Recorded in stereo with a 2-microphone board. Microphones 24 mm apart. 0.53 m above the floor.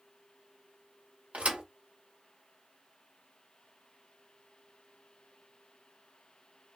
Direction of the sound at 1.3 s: 70° right (ahead or behind).